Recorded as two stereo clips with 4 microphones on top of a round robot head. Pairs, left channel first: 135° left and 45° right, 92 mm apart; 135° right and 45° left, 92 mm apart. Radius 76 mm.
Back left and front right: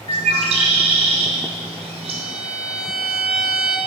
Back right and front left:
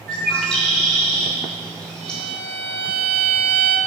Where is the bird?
55° right, 0.6 m.